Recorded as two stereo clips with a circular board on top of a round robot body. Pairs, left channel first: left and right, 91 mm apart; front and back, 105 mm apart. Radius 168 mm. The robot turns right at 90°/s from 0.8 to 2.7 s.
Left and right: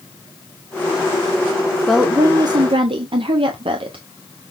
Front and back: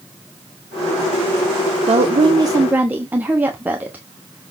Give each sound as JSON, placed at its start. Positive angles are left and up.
{"t": 1.9, "sound": "a woman speaking", "azimuth_deg": 175, "distance_m": 1.3}